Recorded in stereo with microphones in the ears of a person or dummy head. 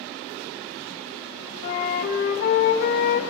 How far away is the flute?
About 0.8 m.